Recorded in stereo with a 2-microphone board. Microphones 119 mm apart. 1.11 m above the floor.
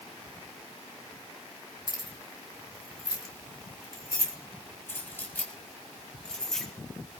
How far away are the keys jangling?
About 4 m.